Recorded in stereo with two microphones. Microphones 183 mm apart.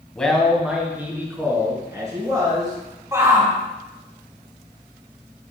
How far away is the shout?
About 2.5 m.